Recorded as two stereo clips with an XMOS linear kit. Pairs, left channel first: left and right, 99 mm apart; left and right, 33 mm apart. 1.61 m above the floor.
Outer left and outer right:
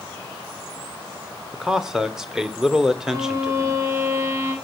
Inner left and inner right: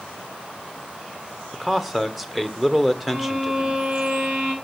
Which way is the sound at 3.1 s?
30° right (ahead or behind).